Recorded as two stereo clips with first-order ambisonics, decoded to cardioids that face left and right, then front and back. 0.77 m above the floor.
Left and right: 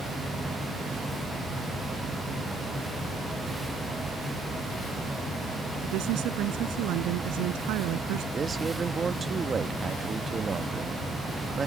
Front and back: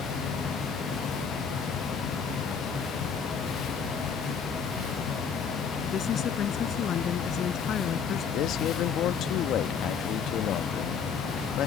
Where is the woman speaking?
60° right.